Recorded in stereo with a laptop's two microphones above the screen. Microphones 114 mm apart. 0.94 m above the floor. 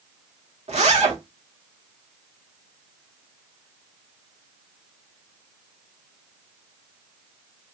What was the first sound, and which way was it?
A zipper, 75° right (ahead or behind).